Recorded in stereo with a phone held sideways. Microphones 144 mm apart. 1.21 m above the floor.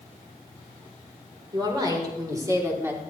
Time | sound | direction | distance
1.5 | a woman speaking | 30° right (ahead or behind) | 3.5 m